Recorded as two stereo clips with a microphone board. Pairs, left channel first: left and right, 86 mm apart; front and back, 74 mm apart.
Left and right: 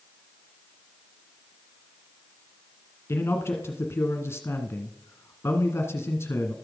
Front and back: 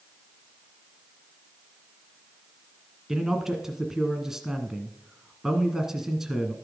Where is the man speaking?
100° left, 1.4 m.